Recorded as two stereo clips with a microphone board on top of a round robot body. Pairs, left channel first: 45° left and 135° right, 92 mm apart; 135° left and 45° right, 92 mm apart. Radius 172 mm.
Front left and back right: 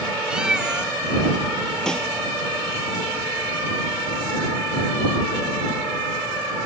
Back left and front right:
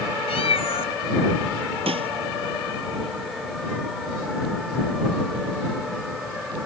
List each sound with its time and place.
0.3 s a cat meowing: 145° left
1.9 s a snare drum: 40° right